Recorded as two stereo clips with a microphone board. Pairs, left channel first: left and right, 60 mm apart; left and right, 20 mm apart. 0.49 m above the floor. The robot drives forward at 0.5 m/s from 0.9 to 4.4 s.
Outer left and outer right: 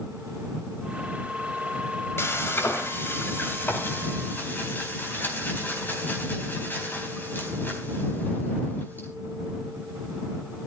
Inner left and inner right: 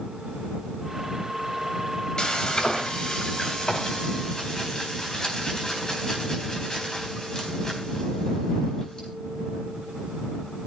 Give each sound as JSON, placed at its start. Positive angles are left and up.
{"t": 2.2, "sound": "frying", "side_deg": 40, "distance_m": 3.0}